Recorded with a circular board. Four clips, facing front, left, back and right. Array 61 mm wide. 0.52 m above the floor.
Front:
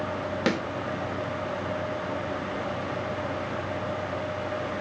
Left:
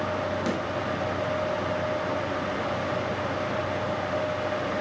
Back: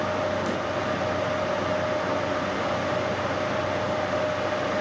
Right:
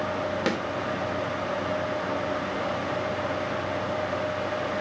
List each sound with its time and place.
0.5 s a snare drum: 30° right, 3 m